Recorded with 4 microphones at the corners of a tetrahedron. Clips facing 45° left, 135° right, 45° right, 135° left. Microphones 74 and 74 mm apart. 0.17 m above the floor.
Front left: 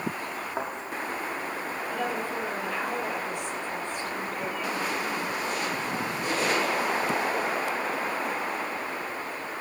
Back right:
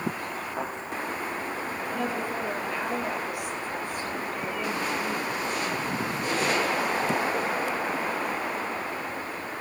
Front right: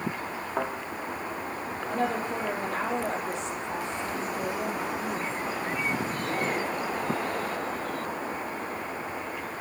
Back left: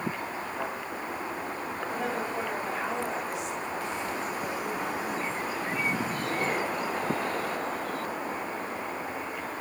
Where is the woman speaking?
55° right, 4.5 m.